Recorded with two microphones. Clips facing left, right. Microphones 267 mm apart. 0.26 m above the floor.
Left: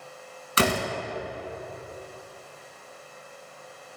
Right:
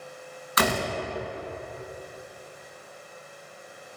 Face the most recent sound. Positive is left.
turn(degrees=30)  # may be behind; listen again after turning